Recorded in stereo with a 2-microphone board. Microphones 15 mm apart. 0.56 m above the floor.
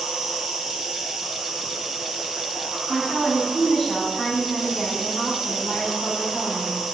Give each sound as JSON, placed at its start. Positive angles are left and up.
{"t": 0.0, "sound": "an insect", "side_deg": -80, "distance_m": 3.0}
{"t": 2.9, "sound": "a woman speaking", "side_deg": 10, "distance_m": 3.5}